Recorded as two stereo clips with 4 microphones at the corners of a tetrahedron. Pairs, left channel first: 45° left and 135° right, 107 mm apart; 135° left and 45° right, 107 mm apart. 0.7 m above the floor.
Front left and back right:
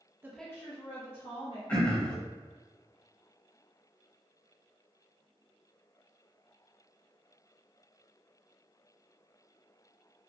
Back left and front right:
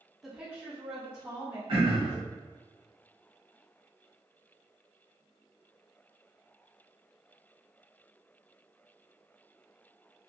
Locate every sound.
0.2 s a woman speaking: 125° right, 0.5 m; by 1.6 s 25° left, 1.6 m
1.7 s throat clearing: 30° right, 1.0 m